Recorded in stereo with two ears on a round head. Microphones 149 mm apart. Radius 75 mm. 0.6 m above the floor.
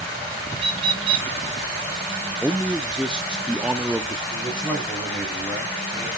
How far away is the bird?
About 1.4 m.